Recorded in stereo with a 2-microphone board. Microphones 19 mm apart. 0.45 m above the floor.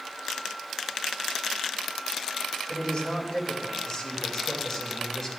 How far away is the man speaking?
About 3 m.